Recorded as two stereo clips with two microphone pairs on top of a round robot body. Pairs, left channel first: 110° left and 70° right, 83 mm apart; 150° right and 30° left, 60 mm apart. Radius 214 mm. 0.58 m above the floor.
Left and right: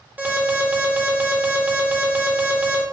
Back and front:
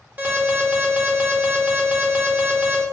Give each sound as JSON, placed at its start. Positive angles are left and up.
{"t": 0.2, "sound": "an alarm", "azimuth_deg": -10, "distance_m": 1.9}